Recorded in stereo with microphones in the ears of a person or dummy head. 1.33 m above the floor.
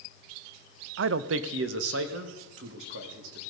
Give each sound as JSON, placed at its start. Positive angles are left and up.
{"t": 1.0, "sound": "a man speaking", "side_deg": -80, "distance_m": 0.5}